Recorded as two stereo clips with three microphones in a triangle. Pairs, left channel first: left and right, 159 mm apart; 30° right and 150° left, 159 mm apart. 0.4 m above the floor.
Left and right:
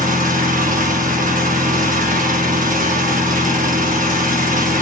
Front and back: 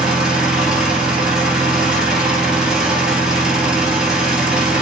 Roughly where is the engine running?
Behind right.